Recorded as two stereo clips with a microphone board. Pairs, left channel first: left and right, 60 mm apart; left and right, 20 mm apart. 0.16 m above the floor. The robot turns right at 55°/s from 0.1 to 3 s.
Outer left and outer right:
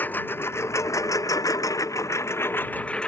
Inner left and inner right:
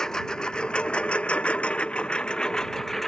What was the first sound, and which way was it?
A lawn mower, 35° left (ahead or behind).